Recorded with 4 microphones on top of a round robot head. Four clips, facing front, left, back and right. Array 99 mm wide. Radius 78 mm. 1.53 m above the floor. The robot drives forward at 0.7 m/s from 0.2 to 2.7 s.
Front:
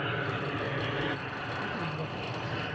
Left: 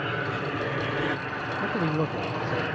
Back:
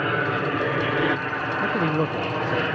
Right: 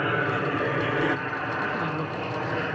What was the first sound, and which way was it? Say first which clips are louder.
An aircraft: right 4 dB, back 9 dB; 150° right.